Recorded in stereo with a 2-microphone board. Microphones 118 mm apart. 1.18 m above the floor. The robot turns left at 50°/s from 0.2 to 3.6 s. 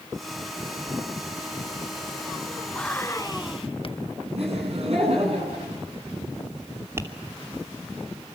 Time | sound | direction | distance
2.8 | whispering | 170° left | 1.1 m
4.3 | laughter | 60° right (ahead or behind) | 10 m
7.0 | tapping | 20° right (ahead or behind) | 2.5 m